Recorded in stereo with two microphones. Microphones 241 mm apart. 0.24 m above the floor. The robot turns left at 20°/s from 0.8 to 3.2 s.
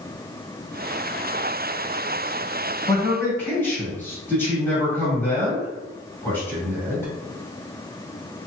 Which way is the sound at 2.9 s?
5° left (ahead or behind).